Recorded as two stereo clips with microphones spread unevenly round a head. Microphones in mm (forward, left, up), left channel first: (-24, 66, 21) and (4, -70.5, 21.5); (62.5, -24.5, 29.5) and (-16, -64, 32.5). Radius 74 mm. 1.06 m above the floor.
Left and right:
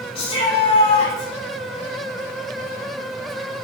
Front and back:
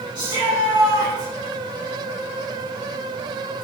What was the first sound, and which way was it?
A shout, 150° left.